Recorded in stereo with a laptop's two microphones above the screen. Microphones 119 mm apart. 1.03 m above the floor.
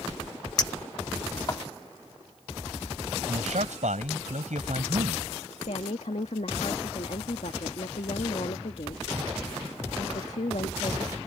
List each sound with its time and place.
0.6 s a clink: 35° left (ahead or behind)
3.3 s a man speaking: 85° right
5.6 s a woman speaking: 70° left (ahead or behind)